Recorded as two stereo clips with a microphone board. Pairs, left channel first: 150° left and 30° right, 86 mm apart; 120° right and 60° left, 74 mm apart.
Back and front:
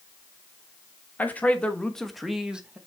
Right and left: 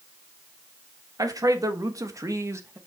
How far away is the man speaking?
About 1.6 m.